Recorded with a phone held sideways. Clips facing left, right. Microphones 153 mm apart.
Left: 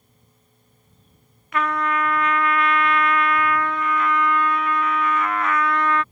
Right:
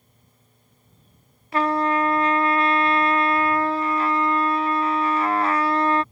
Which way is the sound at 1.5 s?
30° right (ahead or behind).